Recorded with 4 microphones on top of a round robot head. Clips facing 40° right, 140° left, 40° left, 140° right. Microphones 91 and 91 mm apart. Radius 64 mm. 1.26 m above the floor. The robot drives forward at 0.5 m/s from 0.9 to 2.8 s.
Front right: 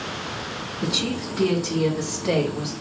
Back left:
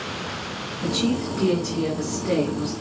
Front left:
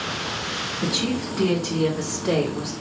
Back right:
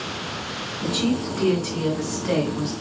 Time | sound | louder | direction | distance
0.8 | a woman speaking | back left 4 dB, back right 3 dB | 30° right | 2.5 m